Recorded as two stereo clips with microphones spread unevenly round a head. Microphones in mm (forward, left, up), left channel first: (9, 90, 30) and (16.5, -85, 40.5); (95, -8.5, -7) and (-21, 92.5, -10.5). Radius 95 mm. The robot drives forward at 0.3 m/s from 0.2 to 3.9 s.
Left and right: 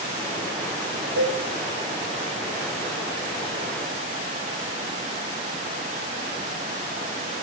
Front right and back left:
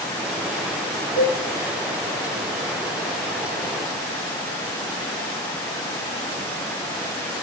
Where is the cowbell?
100° right, 1.3 m; by 1.4 s 105° right, 1.3 m.